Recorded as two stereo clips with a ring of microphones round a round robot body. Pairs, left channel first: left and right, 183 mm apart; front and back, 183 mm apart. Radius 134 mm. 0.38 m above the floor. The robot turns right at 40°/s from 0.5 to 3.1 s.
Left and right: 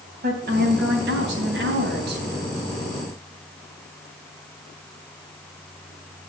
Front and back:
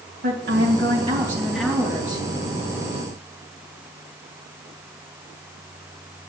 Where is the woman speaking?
135° right, 3 m; by 2.4 s 60° right, 3 m.